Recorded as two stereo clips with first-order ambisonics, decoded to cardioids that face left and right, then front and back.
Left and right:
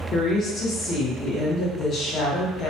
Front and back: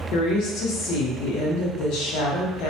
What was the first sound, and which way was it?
A woman speaking, 30° left.